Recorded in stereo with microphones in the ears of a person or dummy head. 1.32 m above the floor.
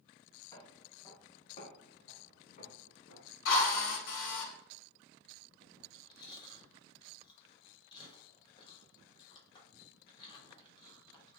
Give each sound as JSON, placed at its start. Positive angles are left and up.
{"t": 0.5, "sound": "footsteps", "side_deg": 25, "distance_m": 4.0}
{"t": 3.5, "sound": "a drill", "side_deg": 75, "distance_m": 3.5}
{"t": 5.8, "sound": "chewing", "side_deg": 25, "distance_m": 6.0}